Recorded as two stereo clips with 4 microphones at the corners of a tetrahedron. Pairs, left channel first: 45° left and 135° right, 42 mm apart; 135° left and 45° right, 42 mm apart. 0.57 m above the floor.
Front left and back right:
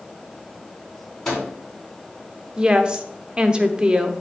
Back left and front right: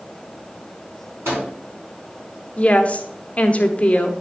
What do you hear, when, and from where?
1.2 s a microwave: 30° right, 3.5 m
2.6 s a woman speaking: 165° left, 0.7 m